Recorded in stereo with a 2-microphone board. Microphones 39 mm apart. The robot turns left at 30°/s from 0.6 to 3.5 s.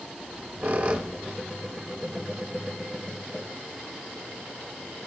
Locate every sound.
0.2 s a squeak: 40° right (ahead or behind), 0.6 m; by 2.5 s centre (ahead or behind), 0.6 m